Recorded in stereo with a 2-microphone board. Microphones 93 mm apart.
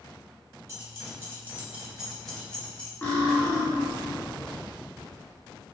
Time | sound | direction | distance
0.7 | keys jangling | 40° right (ahead or behind) | 0.8 m
3.0 | cutlery clinking | 25° left (ahead or behind) | 0.8 m